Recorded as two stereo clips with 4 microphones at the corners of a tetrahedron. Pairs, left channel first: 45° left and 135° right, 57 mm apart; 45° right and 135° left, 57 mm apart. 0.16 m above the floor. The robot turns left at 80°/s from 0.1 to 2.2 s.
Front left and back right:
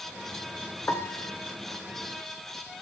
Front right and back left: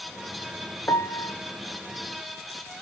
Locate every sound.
0.9 s a piano: 10° right, 0.7 m; by 1.3 s 45° right, 0.7 m